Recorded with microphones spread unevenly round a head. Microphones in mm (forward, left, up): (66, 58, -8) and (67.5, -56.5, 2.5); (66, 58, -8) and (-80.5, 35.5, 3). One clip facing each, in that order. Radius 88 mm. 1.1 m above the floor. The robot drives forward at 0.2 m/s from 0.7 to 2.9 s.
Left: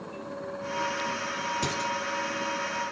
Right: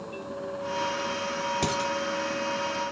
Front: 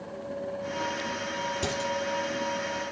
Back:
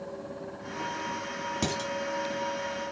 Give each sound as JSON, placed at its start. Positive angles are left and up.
{"t": 1.6, "sound": "dishes clattering", "azimuth_deg": -150, "distance_m": 5.5}